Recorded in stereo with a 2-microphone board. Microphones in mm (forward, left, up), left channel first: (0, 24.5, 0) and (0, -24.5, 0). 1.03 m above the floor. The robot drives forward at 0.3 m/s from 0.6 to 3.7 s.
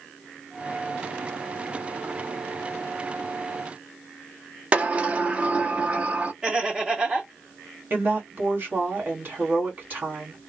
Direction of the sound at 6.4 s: 15° right (ahead or behind).